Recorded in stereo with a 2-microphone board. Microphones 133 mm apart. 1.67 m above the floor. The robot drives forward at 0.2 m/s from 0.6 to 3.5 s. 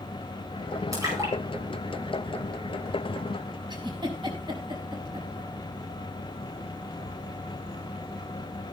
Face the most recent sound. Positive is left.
turn(degrees=-35)  # may be behind; listen again after turning